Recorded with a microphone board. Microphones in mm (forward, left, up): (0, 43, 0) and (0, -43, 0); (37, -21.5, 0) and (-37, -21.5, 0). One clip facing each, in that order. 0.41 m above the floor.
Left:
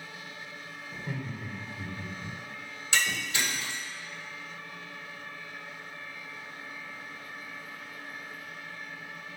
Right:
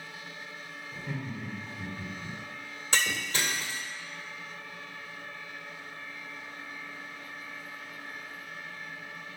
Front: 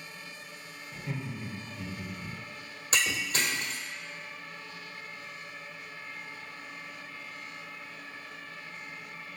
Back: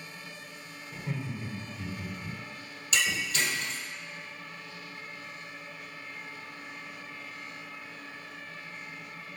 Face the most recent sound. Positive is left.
turn(degrees=-45)